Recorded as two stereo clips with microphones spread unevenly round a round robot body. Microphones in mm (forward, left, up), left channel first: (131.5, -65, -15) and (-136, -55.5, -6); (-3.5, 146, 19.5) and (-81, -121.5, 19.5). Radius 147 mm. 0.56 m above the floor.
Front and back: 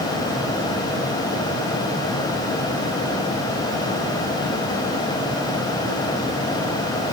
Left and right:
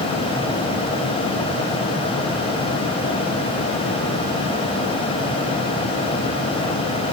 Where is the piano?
No piano in this recording.